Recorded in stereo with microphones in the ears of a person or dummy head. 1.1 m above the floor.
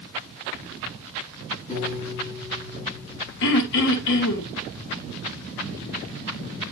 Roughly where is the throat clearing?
Left.